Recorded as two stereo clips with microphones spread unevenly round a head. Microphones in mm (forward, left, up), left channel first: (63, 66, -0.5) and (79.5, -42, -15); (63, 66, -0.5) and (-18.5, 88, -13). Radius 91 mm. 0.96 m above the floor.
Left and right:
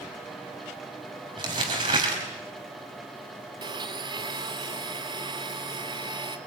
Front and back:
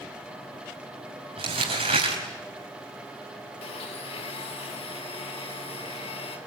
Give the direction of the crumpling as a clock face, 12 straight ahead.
5 o'clock.